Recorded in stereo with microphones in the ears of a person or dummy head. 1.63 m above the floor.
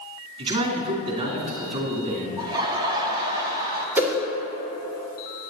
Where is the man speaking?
35° right (ahead or behind), 2.5 m.